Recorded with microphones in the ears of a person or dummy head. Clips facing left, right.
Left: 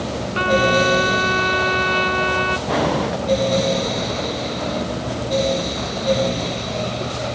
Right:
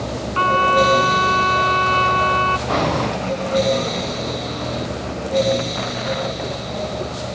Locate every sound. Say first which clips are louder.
0.3 s a trumpet: left 1 dB; 20° left (ahead or behind)
2.7 s breathing: left 1 dB; 5° left (ahead or behind)